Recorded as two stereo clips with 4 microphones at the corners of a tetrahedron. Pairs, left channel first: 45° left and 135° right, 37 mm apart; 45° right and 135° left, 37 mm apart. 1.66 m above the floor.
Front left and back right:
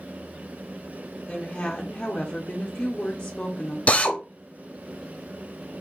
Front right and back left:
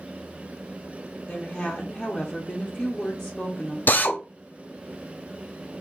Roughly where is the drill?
Ahead.